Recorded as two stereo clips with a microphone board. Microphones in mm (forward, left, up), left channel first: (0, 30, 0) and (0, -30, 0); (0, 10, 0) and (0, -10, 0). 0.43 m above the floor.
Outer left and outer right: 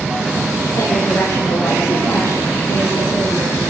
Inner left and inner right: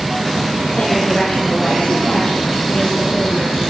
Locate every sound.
0.7 s a woman speaking: 75° left (ahead or behind), 10 m; by 3.6 s 65° left (ahead or behind), 9 m